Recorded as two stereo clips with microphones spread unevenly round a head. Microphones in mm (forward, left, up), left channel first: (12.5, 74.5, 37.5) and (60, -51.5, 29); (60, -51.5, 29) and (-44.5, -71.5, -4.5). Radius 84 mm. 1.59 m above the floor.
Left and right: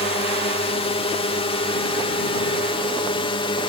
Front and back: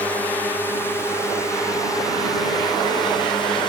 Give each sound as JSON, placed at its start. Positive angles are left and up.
{"t": 0.0, "sound": "a drone", "azimuth_deg": 105}